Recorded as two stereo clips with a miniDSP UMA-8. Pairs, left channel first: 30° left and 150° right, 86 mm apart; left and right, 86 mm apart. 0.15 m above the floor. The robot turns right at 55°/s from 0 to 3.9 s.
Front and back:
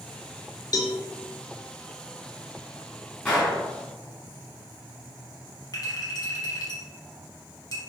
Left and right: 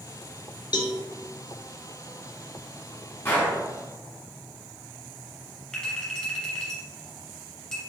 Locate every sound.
0.7 s a cowbell: 65° left, 0.5 m; by 1.0 s 80° left, 0.5 m
3.2 s a gunshot: 90° left, 1.3 m; by 3.6 s 110° left, 1.3 m
5.7 s a clink: 15° left, 1.5 m